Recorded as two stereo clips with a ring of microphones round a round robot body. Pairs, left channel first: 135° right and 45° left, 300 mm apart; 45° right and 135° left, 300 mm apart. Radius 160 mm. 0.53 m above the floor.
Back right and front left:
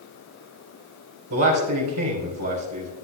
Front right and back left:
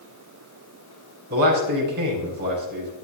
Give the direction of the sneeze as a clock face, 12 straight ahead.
I don't hear a sneeze.